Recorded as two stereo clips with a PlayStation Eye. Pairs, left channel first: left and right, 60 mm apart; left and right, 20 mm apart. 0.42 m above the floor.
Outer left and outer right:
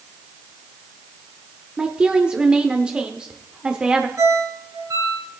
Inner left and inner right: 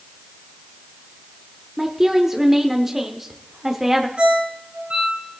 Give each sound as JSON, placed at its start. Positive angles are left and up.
{"t": 1.8, "sound": "a woman speaking", "side_deg": -20, "distance_m": 1.1}
{"t": 4.2, "sound": "a ringtone", "side_deg": -70, "distance_m": 2.5}